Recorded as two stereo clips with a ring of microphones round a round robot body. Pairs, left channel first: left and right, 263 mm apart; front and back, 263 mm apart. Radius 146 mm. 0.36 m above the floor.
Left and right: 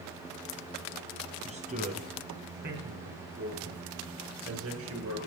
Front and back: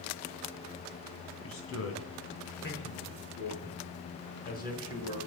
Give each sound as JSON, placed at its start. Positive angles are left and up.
{"t": 1.4, "sound": "a man speaking", "azimuth_deg": -25, "distance_m": 3.5}